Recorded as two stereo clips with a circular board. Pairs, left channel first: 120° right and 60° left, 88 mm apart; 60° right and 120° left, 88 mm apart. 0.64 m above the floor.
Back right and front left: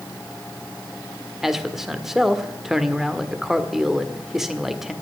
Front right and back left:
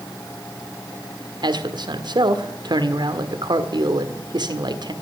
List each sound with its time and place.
1.4 s a man speaking: 145° left, 1.4 m